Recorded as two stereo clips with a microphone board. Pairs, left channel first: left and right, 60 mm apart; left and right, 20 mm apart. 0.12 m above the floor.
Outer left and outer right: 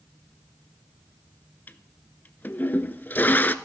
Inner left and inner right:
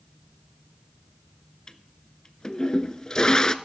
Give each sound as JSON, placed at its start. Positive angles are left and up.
{"t": 1.7, "sound": "a toilet flushing", "side_deg": 35, "distance_m": 0.6}